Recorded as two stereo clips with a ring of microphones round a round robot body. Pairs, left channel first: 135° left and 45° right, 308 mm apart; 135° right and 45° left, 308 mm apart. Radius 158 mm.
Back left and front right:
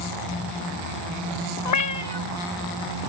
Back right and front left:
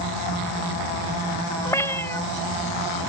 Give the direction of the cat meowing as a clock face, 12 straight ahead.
7 o'clock.